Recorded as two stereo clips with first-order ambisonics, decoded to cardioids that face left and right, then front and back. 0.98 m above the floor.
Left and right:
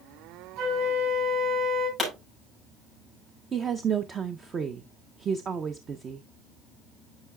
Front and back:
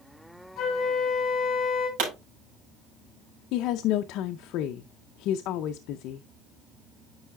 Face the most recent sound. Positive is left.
turn(degrees=-25)